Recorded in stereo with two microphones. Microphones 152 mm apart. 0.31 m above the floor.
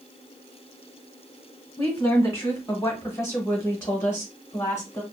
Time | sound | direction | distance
1.8 | a woman speaking | 15° left (ahead or behind) | 1.5 m